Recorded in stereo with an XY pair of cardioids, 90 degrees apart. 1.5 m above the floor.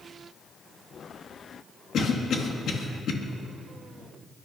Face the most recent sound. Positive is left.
turn(degrees=65)